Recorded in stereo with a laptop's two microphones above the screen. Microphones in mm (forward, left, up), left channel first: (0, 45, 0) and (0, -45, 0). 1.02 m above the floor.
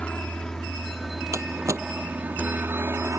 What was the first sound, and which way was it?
A helicopter, 15° left (ahead or behind).